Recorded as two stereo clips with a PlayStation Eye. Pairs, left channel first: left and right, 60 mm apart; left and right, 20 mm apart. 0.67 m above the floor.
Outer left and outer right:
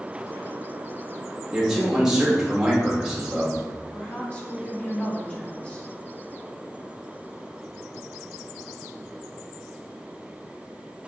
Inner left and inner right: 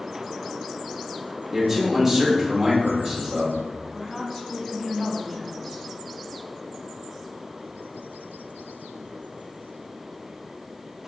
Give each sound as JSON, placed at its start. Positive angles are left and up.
{"t": 1.5, "sound": "a man speaking", "side_deg": -10, "distance_m": 1.0}
{"t": 3.9, "sound": "a woman speaking", "side_deg": 15, "distance_m": 0.8}